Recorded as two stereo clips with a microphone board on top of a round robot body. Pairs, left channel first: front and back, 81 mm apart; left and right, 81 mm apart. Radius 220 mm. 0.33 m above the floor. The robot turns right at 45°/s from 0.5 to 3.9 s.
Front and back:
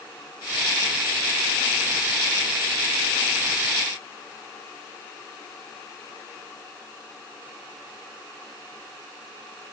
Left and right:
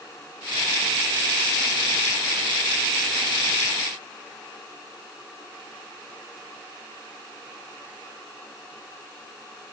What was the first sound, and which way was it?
Only background noise.